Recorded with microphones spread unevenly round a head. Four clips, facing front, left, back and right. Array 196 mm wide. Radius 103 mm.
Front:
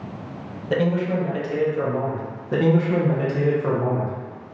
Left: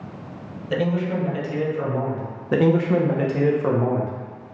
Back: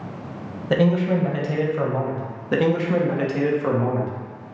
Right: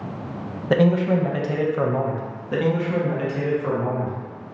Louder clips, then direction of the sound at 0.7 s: Right 5 dB, back 2 dB; 110° right.